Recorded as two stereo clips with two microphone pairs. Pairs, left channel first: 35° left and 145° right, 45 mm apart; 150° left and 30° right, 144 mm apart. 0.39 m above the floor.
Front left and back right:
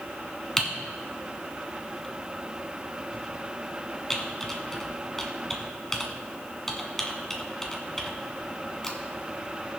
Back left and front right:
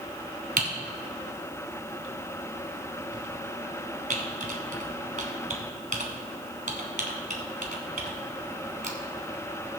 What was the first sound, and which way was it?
Typing on a keyboard, 50° right.